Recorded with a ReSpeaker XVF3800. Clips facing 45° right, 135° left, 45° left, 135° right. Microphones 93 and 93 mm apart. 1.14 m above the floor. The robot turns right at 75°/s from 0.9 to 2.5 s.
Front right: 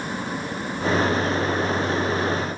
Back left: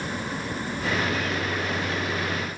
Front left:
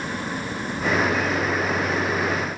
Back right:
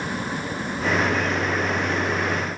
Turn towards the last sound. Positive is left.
No sound to turn to.